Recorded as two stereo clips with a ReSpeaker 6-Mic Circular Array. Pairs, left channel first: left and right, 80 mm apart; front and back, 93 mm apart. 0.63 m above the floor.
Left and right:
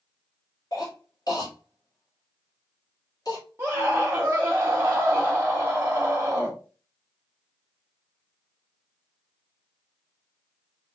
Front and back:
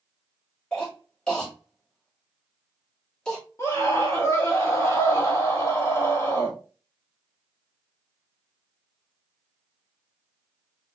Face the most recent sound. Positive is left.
turn(degrees=-40)